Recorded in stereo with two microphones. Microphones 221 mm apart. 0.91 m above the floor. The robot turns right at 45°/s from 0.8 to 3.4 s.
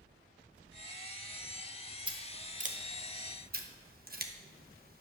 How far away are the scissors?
About 0.9 m.